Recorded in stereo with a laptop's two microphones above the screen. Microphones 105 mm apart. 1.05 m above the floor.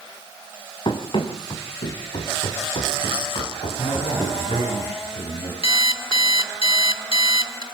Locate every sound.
0.8 s running footsteps: 50° left (ahead or behind), 4.5 m; by 4.7 s 75° left (ahead or behind), 8.5 m
3.8 s a man speaking: 70° left (ahead or behind), 7.5 m
5.6 s an alarm clock: 60° left (ahead or behind), 1.4 m